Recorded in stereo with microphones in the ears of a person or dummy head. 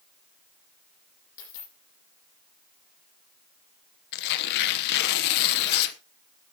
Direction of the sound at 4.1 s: 60° left (ahead or behind).